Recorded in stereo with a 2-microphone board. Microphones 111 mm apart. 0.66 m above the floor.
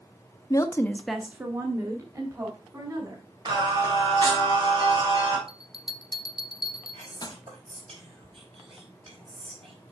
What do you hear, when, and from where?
0.5 s a woman speaking: 35° left (ahead or behind), 0.9 m; by 3.2 s 35° right (ahead or behind), 3 m
3.5 s singing: 40° right (ahead or behind), 3 m
5.5 s a bell: 40° left (ahead or behind), 0.6 m
6.9 s whispering: 65° right (ahead or behind), 4 m